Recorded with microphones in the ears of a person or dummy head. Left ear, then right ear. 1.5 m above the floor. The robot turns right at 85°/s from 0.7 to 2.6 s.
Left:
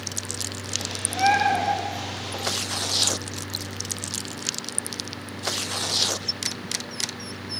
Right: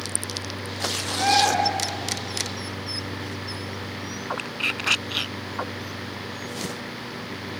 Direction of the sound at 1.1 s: 155° left.